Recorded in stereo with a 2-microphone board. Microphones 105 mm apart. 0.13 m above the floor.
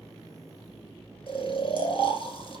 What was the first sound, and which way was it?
Snoring, 60° left (ahead or behind).